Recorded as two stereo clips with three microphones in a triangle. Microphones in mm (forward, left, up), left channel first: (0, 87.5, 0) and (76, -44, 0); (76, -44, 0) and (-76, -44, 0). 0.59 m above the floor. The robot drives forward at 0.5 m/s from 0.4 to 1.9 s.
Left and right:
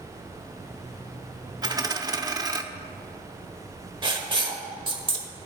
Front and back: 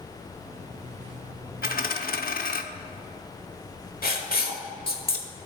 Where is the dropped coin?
5° left, 0.7 m; by 2.6 s 10° left, 0.6 m.